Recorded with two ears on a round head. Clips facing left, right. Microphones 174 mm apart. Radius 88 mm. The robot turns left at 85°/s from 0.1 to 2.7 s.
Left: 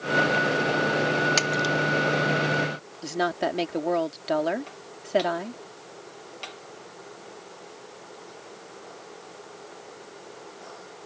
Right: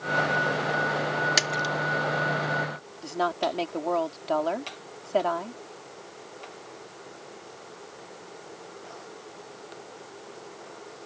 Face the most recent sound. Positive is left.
turn(degrees=20)  # may be behind; listen again after turning